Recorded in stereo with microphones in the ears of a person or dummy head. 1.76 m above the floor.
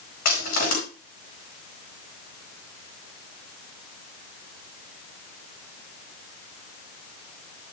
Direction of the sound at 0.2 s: 55° left (ahead or behind).